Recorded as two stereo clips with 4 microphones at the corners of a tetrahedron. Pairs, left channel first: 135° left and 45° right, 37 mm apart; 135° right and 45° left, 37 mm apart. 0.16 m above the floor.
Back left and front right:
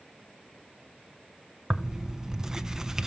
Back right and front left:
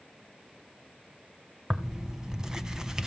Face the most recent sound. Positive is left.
turn(degrees=0)